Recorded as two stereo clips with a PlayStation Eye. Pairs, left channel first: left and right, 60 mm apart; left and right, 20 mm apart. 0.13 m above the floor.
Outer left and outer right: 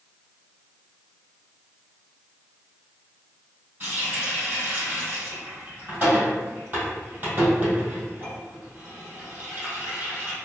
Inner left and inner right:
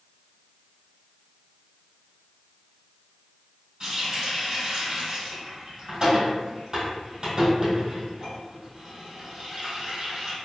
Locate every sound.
3.8 s a running tap: 35° right (ahead or behind), 2.0 m